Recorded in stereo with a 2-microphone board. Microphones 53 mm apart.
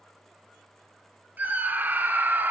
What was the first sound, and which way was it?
A scream, 35° right (ahead or behind).